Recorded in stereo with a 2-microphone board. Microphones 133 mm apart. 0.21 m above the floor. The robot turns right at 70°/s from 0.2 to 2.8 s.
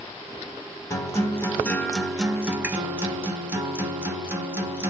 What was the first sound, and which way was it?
A guitar, 25° left (ahead or behind).